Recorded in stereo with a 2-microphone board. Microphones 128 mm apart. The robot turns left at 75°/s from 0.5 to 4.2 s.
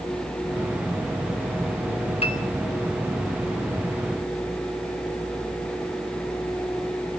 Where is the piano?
50° left (ahead or behind), 3.5 m; by 2.4 s 65° left (ahead or behind), 3.5 m.